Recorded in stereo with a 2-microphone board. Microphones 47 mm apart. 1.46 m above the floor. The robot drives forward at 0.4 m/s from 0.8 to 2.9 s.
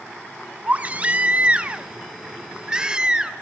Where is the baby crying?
30° right (ahead or behind), 1.0 m; by 3.3 s 20° right (ahead or behind), 1.6 m.